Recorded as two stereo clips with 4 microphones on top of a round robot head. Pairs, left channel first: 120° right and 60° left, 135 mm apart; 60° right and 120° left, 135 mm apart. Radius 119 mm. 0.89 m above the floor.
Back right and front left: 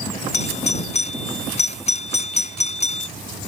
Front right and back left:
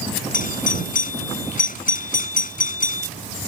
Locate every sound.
0.3 s a doorbell: 80° right